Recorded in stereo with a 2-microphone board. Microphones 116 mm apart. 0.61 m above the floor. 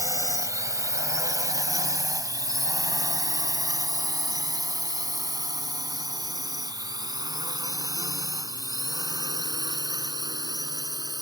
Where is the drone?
25° right (ahead or behind); by 11.2 s 35° right (ahead or behind).